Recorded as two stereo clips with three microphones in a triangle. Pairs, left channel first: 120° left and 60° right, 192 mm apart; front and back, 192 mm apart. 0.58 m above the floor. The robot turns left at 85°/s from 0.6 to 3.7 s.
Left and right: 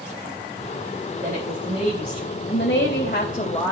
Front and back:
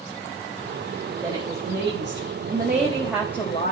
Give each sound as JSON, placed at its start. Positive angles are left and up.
{"t": 1.2, "sound": "a woman speaking", "azimuth_deg": -100, "distance_m": 3.5}